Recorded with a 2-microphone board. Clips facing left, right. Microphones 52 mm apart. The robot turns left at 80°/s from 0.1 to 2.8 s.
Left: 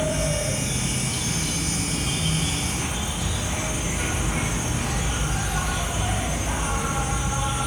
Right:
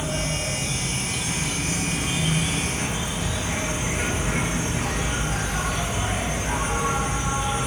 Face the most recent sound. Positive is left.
turn(degrees=-135)